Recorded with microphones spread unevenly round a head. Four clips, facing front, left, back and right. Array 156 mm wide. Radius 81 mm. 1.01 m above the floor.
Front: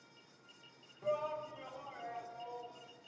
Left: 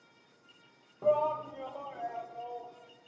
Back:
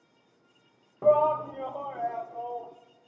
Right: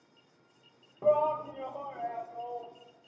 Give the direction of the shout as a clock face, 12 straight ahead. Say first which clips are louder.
Right 2 dB, back 16 dB; 6 o'clock.